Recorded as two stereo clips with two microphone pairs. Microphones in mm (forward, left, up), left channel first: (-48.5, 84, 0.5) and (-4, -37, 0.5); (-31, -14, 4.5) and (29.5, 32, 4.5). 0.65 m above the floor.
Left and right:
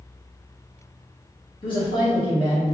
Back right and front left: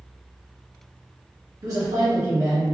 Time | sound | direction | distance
1.6 | a man speaking | 65° left | 1.2 m